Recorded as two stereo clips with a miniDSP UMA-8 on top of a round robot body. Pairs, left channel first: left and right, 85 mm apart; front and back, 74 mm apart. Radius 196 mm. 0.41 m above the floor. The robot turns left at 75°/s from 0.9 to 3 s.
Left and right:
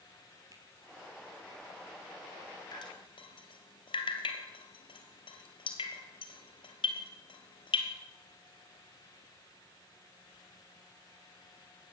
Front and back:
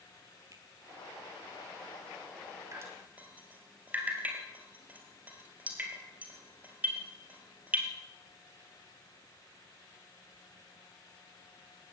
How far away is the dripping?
About 3 m.